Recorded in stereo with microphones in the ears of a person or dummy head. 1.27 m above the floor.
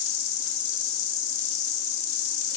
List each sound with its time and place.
0.0 s an insect: 65° left (ahead or behind), 1.2 m